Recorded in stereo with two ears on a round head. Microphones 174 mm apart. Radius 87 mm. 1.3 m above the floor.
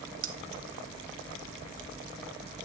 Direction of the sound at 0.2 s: 75° right (ahead or behind).